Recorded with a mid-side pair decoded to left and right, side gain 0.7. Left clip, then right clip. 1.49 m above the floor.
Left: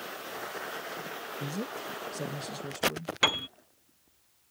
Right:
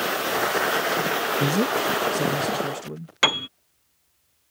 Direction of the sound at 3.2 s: 25° right.